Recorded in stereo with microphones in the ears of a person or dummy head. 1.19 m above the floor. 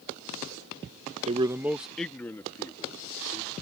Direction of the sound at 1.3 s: 35° right (ahead or behind).